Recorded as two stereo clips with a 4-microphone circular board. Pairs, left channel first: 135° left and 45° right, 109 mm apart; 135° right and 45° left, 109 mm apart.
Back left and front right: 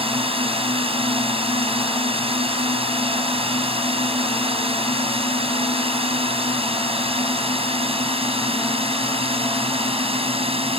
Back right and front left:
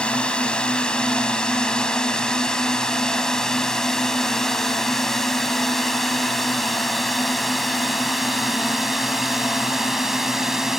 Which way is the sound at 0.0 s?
55° right.